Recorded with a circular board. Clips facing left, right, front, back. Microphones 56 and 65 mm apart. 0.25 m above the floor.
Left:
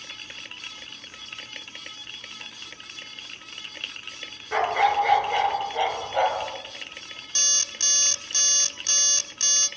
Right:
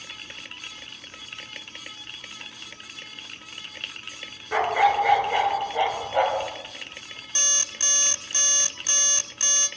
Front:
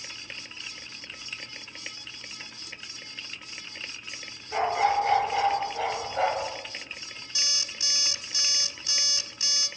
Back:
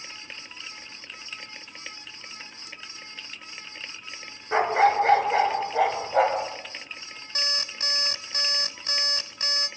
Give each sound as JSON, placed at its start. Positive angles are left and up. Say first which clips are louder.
{"t": 4.5, "sound": "a dog barking", "louder": "right 1 dB, back 4 dB", "azimuth_deg": -175, "distance_m": 1.6}
{"t": 7.3, "sound": "an alarm clock", "louder": "right 2 dB, back 6 dB", "azimuth_deg": -160, "distance_m": 0.7}